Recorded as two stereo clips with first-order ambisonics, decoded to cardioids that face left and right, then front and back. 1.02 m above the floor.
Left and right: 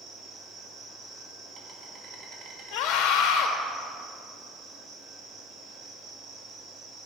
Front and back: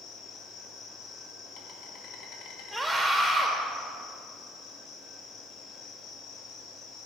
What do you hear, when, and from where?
0.0 s an insect: 40° right, 2 m
2.7 s a scream: 90° left, 3.5 m